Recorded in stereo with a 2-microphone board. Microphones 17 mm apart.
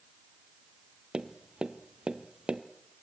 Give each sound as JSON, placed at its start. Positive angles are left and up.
{"t": 1.1, "sound": "tapping", "side_deg": -65, "distance_m": 1.1}